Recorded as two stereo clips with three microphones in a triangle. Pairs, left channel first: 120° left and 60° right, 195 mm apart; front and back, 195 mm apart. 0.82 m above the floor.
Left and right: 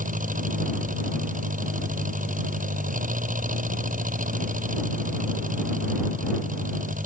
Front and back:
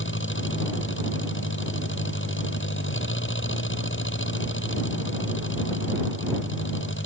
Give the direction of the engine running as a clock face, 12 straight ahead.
12 o'clock.